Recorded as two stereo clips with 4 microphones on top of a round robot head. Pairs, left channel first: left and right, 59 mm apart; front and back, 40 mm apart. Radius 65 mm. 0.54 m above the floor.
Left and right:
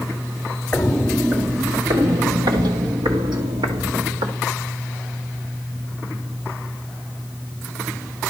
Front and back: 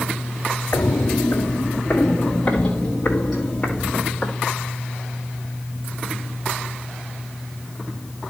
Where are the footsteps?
30° left, 0.7 m; by 4.3 s 85° right, 3 m.